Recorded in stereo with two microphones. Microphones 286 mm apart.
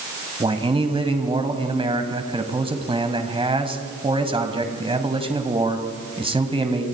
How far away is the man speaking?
About 1.7 m.